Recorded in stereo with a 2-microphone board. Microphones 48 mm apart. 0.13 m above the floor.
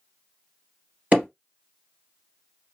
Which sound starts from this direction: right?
Hammering, at 1.1 s.